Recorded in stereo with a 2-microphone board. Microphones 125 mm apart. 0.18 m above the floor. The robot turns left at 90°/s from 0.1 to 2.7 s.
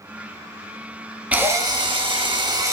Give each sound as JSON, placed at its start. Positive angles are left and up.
{"t": 1.3, "sound": "a drill", "azimuth_deg": -15, "distance_m": 0.5}